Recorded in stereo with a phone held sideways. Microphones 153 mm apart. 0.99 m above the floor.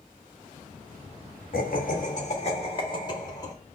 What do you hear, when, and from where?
1.5 s laughter: 70° left (ahead or behind), 1.4 m; by 3.5 s 20° left (ahead or behind), 1.8 m